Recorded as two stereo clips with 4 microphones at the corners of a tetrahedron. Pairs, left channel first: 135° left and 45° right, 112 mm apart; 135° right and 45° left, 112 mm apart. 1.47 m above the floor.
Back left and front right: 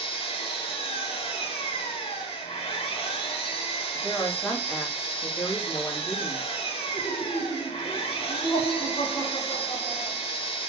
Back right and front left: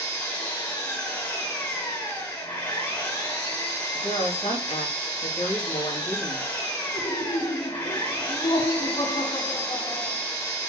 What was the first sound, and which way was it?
An engine running, 155° left.